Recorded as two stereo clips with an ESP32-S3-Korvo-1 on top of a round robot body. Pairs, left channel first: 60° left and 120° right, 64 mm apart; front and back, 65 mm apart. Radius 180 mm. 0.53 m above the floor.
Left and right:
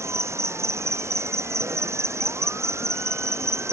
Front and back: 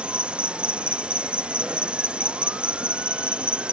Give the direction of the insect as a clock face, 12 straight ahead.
4 o'clock.